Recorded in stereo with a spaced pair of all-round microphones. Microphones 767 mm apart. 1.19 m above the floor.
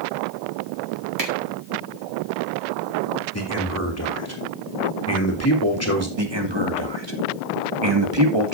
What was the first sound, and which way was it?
A finger snap, 85° right.